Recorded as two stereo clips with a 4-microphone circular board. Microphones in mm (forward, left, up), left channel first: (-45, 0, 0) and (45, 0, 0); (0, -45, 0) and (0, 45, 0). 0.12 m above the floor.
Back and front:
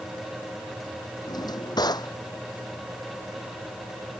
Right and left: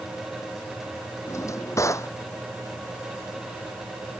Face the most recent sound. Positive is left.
turn(degrees=-145)